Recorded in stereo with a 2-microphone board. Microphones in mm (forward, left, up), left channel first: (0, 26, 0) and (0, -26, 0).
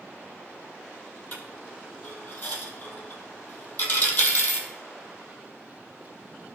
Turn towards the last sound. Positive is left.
turn(degrees=35)  # may be behind; listen again after turning